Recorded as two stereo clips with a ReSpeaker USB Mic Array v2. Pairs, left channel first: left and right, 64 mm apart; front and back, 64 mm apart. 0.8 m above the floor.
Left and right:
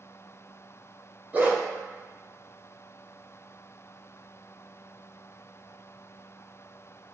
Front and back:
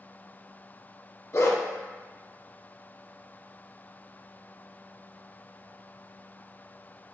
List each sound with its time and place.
1.3 s a dog barking: 30° right, 0.7 m